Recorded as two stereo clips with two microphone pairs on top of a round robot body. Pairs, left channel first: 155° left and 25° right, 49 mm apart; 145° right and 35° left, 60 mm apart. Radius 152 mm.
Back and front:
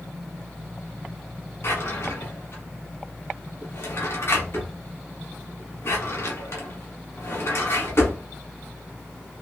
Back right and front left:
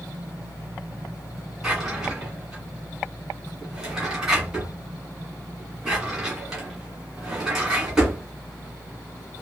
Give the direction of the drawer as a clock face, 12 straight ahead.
8 o'clock.